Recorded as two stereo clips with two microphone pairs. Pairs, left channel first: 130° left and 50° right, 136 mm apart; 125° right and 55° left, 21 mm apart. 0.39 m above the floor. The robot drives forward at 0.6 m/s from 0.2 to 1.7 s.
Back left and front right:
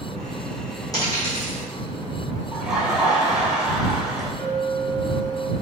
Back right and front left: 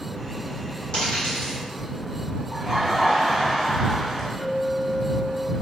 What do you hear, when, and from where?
0.9 s a dropped coin: 165° right, 1.9 m; by 1.6 s 170° right, 2.5 m
2.5 s laughter: 35° left, 0.8 m
4.4 s a clink: 155° right, 1.1 m